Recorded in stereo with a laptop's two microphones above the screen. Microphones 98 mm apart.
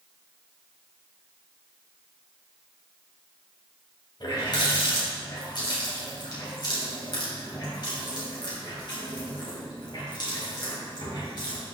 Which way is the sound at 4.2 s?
50° left (ahead or behind).